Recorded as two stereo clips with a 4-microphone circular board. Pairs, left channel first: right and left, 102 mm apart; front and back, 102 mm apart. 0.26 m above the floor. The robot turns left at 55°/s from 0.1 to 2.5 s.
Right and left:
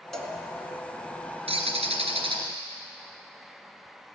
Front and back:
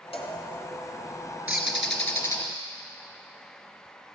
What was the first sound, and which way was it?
A cowbell, 5° right.